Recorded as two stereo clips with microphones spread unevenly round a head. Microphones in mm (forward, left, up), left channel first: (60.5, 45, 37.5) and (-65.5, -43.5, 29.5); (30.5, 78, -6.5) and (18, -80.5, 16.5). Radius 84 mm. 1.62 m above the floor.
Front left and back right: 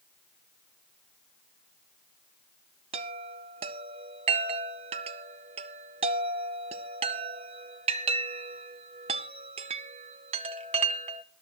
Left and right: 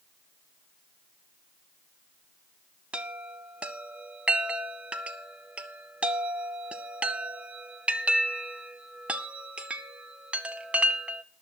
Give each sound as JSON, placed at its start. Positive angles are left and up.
{"t": 2.9, "sound": "a chime", "azimuth_deg": -155, "distance_m": 0.6}